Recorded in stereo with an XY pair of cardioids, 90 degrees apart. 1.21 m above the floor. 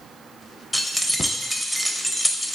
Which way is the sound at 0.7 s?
5° left.